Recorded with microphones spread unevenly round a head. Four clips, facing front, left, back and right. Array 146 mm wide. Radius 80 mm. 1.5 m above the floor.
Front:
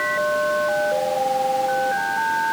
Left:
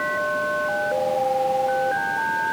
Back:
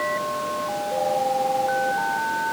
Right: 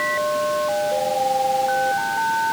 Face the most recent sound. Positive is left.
No sound to turn to.